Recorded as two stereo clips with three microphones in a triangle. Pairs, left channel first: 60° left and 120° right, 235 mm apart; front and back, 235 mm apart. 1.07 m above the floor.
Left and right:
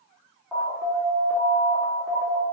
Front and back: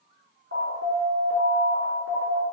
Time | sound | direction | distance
0.5 | an alarm | 155° left | 3 m